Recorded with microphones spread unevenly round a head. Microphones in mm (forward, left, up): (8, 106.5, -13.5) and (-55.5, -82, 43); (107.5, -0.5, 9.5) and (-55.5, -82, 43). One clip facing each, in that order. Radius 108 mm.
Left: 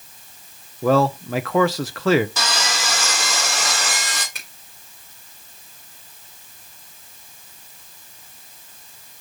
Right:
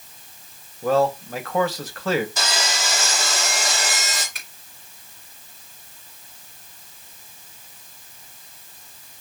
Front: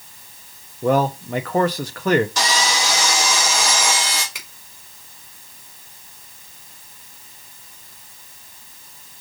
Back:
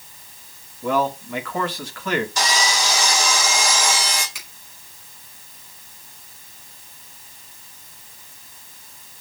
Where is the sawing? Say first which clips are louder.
Left 1 dB, front 1 dB; 45° left, 2.5 m.